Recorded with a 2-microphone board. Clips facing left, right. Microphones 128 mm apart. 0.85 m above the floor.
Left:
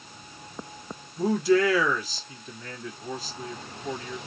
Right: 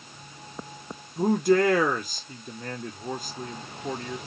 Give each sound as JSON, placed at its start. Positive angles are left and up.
{"t": 1.2, "sound": "a man speaking", "side_deg": -55, "distance_m": 1.4}